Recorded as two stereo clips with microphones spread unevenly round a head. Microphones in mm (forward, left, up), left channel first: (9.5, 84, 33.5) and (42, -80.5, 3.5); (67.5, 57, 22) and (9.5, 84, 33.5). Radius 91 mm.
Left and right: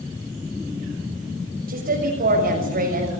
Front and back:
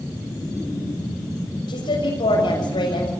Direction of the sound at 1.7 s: 35° right.